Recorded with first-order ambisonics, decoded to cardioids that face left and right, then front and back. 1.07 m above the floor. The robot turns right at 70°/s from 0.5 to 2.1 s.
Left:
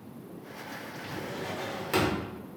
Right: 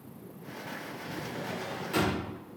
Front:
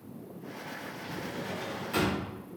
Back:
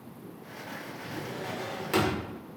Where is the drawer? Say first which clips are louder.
Left 2 dB, back 1 dB; 80° left, 0.9 m; by 2.3 s 155° left, 0.9 m.